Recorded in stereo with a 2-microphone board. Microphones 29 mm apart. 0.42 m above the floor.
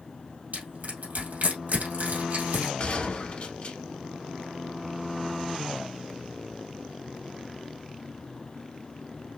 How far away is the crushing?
About 2.5 m.